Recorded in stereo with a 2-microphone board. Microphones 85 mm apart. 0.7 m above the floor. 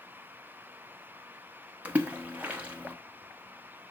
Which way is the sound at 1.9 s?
20° right (ahead or behind).